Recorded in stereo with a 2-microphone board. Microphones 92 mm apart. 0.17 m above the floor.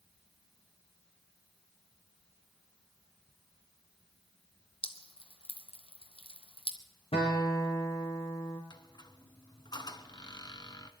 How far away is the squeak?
About 1.0 m.